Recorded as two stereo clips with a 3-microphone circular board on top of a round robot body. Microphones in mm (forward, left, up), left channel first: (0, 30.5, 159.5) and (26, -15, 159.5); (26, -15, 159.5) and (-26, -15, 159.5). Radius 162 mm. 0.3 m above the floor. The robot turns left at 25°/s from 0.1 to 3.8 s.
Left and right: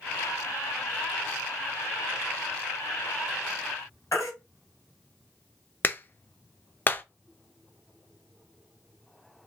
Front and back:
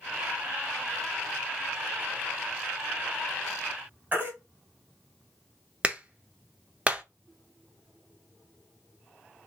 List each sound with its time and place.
4.1 s a baby crying: 125° left, 2.5 m
5.8 s a clap: 130° left, 0.8 m